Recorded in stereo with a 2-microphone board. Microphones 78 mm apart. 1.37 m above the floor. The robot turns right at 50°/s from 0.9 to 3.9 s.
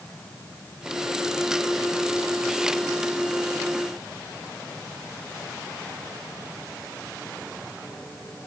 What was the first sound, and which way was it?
Only background noise.